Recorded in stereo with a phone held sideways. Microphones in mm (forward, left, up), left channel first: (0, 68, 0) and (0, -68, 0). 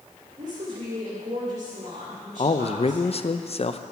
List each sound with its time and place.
0.4 s a woman speaking: 60° right (ahead or behind), 3 m
2.4 s a man speaking: 50° left (ahead or behind), 0.5 m